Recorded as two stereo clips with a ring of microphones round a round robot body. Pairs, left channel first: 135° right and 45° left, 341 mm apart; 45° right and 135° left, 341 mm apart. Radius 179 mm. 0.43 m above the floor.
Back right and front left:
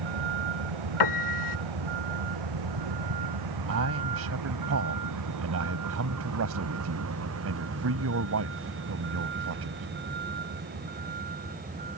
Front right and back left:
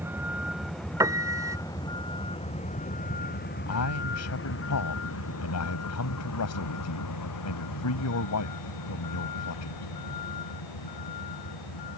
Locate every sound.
0.0 s a vehicle: 50° left; by 12.0 s 20° right
1.0 s a piano: 145° right
3.7 s a man speaking: straight ahead